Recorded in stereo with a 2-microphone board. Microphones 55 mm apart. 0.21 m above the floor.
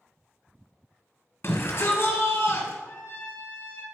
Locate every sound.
1.4 s a shout: 50° left (ahead or behind), 1.9 m
2.8 s a trumpet: 45° left (ahead or behind), 2.5 m